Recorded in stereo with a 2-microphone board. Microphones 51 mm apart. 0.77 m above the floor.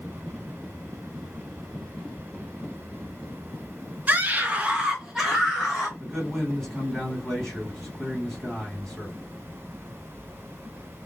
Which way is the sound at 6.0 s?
Centre (ahead or behind).